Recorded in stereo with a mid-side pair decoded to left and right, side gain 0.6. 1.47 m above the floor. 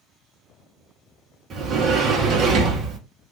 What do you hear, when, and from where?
1.5 s a sliding door: 45° right, 1.3 m